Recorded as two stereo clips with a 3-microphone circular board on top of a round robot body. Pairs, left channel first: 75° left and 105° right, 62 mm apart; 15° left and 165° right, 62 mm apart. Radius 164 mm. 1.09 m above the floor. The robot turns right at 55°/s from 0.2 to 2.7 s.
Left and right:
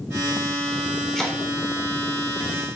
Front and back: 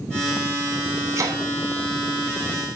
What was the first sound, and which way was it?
Chopping, 160° left.